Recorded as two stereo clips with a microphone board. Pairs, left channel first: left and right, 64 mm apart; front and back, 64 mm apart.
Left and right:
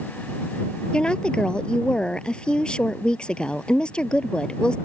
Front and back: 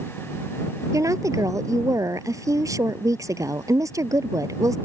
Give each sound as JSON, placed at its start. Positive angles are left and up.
{"t": 0.9, "sound": "a woman speaking", "azimuth_deg": 165}